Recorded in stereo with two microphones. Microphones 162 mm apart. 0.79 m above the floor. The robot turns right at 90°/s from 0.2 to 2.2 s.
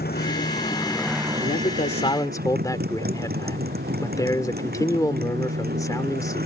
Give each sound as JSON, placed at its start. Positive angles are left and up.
{"t": 0.0, "sound": "a motorcycle", "azimuth_deg": 100}
{"t": 1.4, "sound": "a man speaking", "azimuth_deg": 85}